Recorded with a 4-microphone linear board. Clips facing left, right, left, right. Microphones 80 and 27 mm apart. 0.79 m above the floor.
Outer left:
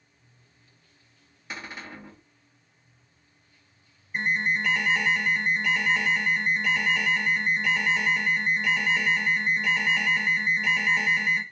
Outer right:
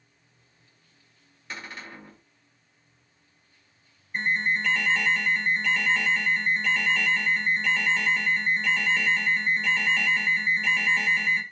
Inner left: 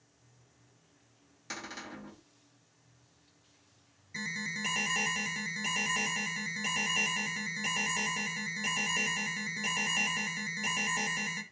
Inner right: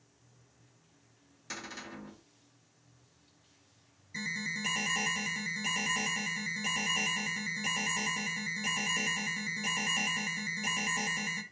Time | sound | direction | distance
1.5 | a cupboard door | 10° left (ahead or behind) | 1.8 m
4.1 | an alarm | 10° left (ahead or behind) | 0.6 m